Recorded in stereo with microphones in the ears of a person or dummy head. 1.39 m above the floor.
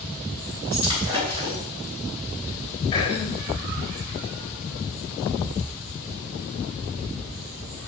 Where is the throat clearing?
25° left (ahead or behind), 3 m.